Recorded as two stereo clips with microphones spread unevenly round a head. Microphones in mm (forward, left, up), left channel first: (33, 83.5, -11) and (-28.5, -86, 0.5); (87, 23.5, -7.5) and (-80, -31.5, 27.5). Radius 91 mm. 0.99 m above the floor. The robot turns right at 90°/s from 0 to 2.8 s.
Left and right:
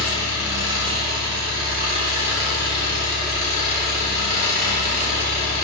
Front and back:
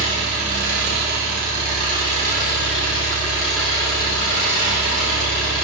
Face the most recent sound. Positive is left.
turn(degrees=15)